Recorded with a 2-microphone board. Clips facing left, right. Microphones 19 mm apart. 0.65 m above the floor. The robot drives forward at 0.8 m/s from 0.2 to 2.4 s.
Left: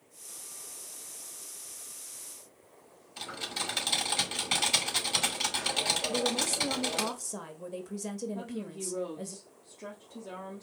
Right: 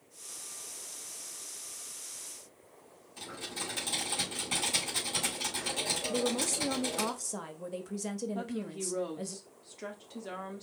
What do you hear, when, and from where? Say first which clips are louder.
3.2 s typing on a keyboard: left 4 dB; 40° left (ahead or behind), 2 m
6.1 s a woman speaking: left 2 dB; 15° right (ahead or behind), 0.7 m
8.3 s a woman speaking: right 1 dB; 45° right (ahead or behind), 1.3 m